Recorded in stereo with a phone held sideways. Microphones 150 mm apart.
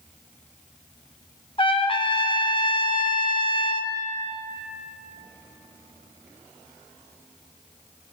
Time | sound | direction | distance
1.6 | a trumpet | 35° left (ahead or behind) | 0.5 m